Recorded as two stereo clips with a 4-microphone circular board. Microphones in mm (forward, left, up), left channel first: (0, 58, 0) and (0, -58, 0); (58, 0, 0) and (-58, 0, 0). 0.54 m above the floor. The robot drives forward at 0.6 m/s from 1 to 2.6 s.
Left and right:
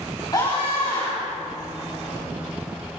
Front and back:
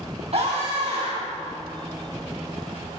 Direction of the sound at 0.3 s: 145° left.